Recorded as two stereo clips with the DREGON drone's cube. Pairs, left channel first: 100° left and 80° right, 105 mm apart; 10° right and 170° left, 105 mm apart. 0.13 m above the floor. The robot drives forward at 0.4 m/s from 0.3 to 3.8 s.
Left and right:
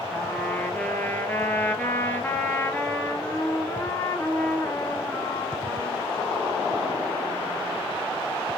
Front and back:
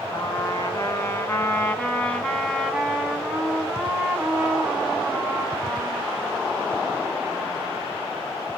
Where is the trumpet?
30° left, 2 m; by 7.8 s 110° left, 1.8 m.